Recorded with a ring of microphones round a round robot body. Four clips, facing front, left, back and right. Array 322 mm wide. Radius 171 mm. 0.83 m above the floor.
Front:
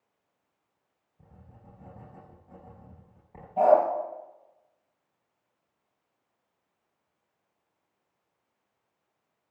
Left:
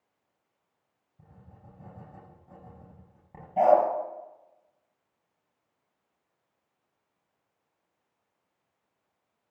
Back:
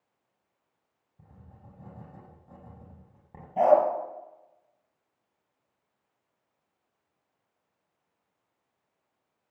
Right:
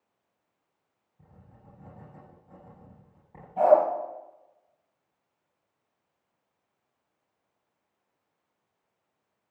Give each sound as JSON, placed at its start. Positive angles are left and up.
{"t": 1.2, "sound": "writing", "azimuth_deg": 155, "distance_m": 7.5}
{"t": 3.6, "sound": "a dog barking", "azimuth_deg": 150, "distance_m": 4.5}